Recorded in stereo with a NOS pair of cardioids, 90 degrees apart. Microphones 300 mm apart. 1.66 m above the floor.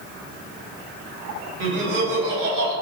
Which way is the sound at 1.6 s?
70° right.